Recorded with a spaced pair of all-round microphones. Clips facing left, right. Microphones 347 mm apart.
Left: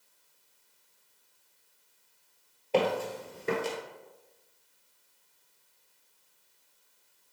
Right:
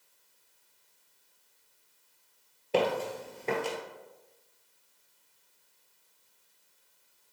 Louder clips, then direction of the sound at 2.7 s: Left 1 dB; 20° right (ahead or behind).